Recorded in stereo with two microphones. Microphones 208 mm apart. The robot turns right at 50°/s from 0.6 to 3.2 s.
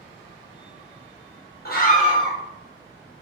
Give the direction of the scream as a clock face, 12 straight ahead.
8 o'clock.